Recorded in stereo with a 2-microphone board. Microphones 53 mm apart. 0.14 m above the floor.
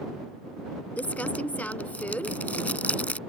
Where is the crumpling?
30° left (ahead or behind).